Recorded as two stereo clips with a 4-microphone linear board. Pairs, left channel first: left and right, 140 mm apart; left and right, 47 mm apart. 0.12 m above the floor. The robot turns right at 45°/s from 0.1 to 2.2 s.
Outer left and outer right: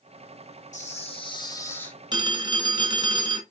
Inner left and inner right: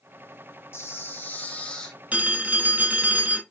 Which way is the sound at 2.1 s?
30° right (ahead or behind).